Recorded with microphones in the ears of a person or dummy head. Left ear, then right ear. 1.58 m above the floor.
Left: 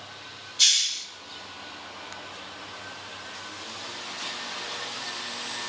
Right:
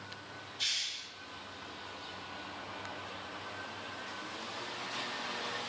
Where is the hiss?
30° left (ahead or behind), 1.4 m.